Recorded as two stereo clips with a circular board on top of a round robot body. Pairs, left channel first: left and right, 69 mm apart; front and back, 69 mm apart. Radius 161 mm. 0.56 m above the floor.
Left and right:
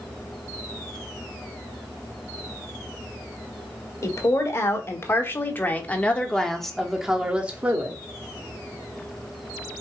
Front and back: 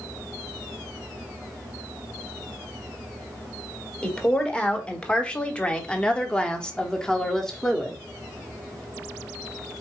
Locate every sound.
4.0 s a woman speaking: 70° left, 1.9 m; by 8.0 s 80° right, 1.3 m